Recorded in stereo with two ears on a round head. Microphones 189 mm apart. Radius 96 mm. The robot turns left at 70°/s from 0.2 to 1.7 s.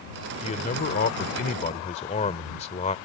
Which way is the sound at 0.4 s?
135° left.